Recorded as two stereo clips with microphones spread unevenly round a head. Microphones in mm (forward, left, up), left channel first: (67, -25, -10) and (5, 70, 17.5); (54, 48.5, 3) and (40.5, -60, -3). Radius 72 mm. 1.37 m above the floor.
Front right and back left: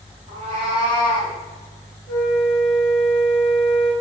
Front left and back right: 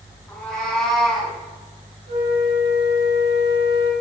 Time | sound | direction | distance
0.3 | a cat meowing | 160° left | 5 m
2.1 | a flute | 145° right | 5.5 m